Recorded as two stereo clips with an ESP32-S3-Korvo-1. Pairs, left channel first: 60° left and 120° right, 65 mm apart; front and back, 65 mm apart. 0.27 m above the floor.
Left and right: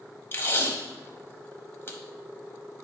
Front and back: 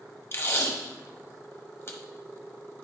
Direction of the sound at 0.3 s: 20° left.